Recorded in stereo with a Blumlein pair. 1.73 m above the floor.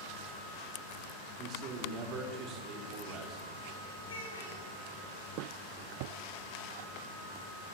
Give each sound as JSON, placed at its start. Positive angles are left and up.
{"t": 1.4, "sound": "a man speaking", "azimuth_deg": -35, "distance_m": 4.5}
{"t": 4.0, "sound": "a child speaking", "azimuth_deg": 70, "distance_m": 9.5}